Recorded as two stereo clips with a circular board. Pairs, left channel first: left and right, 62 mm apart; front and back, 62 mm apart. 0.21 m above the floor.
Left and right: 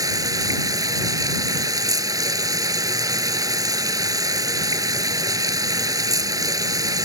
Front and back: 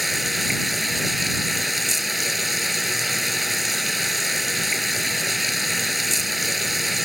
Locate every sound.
0.0 s running water: 95° right